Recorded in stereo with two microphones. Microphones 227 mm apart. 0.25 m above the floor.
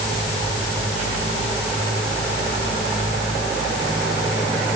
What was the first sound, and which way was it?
Only background noise.